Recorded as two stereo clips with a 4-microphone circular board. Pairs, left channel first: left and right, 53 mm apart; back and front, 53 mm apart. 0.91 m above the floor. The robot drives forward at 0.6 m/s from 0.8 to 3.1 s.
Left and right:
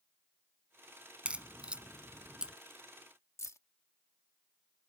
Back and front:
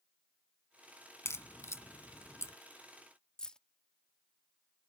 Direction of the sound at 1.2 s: 155° right.